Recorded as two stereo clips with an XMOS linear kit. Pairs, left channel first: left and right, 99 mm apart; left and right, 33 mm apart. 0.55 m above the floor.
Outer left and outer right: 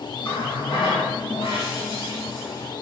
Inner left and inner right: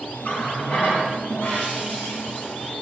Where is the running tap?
65° left (ahead or behind), 1.4 m.